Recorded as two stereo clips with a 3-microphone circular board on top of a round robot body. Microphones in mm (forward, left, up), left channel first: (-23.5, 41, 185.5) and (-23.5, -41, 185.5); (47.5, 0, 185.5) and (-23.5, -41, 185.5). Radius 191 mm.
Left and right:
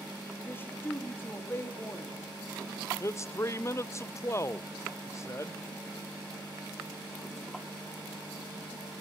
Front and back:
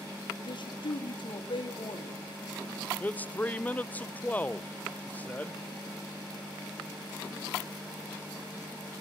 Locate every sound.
0.4 s a man speaking: 30° left, 2.5 m
3.0 s a man speaking: 85° left, 0.7 m